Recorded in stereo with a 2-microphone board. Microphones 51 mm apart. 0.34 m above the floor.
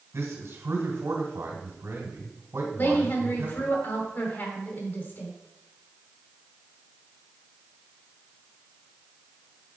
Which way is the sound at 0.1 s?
65° right (ahead or behind).